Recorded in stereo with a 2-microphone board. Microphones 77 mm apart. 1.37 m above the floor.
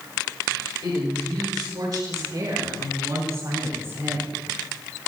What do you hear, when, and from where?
0.8 s a woman speaking: 70° right (ahead or behind), 6 m; by 4.3 s 60° right (ahead or behind), 2.5 m